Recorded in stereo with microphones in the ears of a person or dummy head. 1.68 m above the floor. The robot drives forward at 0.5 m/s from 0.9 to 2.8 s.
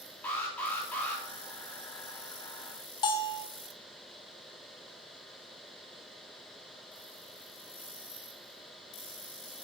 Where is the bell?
30° left (ahead or behind), 0.8 m.